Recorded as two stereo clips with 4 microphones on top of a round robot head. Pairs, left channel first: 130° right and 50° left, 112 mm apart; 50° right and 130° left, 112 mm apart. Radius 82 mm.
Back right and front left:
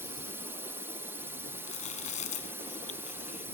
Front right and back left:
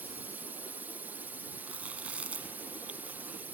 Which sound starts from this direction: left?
A drone, at 0.0 s.